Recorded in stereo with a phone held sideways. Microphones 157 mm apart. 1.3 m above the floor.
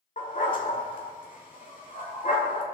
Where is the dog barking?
55° left (ahead or behind), 1.8 m.